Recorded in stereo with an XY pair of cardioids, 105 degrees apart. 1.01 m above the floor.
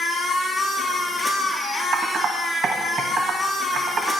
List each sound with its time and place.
0.0 s a machine running: 5° left, 4 m
1.9 s typing on a keyboard: 55° right, 2.5 m